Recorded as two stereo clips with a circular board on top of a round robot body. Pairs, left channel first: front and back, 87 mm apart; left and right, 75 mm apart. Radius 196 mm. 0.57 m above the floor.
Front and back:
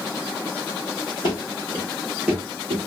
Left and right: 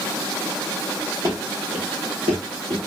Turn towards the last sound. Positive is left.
turn(degrees=-130)